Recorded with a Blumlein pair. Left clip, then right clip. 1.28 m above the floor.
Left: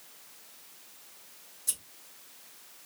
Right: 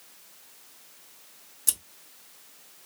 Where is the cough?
No cough in this recording.